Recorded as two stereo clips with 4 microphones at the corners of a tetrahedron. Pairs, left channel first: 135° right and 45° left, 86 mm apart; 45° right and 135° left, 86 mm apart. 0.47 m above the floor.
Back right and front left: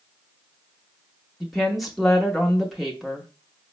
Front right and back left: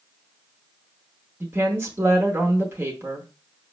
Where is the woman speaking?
135° left, 0.8 m.